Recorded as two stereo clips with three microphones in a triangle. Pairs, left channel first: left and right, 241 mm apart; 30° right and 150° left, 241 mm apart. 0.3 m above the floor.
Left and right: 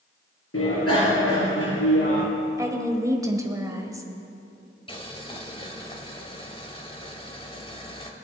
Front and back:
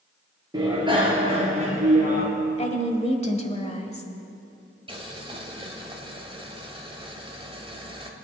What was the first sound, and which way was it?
A bicycle bell, 80° left.